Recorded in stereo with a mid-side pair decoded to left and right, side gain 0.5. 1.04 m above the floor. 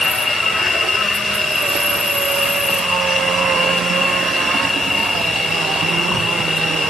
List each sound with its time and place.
0.0 s an insect: 25° left